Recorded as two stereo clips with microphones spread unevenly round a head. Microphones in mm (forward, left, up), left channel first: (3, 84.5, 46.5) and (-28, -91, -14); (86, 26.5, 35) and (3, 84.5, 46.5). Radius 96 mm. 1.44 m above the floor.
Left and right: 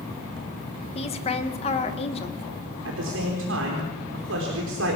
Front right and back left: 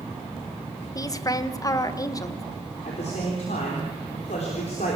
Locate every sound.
0.9 s a woman speaking: 20° left, 1.7 m
2.9 s a man speaking: 80° right, 4 m